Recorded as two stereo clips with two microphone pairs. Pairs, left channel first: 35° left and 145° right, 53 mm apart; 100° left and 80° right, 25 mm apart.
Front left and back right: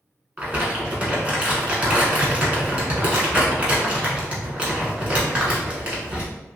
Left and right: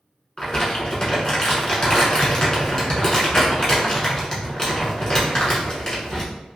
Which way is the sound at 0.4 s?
155° left.